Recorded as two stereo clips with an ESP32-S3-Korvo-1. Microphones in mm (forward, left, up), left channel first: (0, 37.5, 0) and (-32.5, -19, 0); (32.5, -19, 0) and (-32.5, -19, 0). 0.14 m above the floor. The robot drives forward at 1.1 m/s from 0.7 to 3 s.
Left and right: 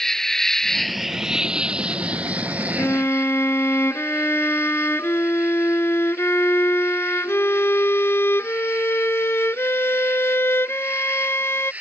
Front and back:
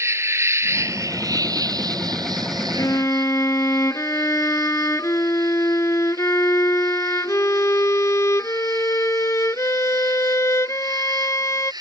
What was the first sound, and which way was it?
An insect, 140° left.